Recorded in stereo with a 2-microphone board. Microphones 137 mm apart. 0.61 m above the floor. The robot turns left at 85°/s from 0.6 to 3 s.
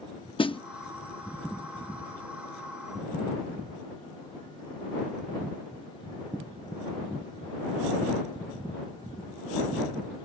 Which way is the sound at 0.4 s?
40° left (ahead or behind).